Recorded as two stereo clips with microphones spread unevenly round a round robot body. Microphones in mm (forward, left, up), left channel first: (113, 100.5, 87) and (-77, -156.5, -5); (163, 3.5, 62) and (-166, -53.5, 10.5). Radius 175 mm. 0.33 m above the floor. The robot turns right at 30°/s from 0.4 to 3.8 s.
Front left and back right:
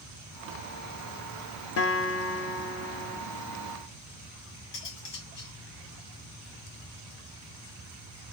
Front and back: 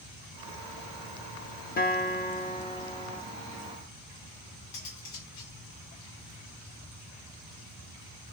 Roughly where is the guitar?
Ahead left.